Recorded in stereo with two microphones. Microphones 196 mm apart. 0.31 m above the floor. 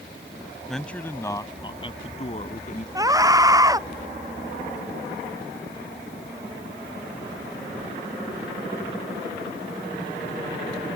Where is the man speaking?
Centre (ahead or behind); by 2.9 s 45° left (ahead or behind).